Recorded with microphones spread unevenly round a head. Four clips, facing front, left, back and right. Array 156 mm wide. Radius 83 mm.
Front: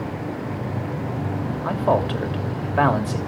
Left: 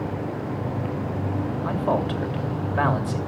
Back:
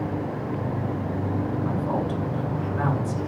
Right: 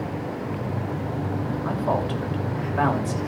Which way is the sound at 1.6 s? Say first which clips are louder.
Left 1 dB, front 5 dB; straight ahead.